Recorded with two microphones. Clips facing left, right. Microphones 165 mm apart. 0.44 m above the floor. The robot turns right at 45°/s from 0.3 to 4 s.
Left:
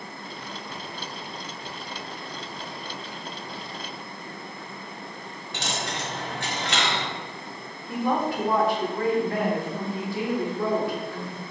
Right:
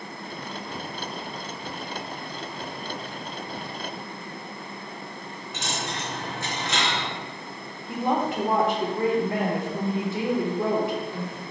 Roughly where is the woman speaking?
Right.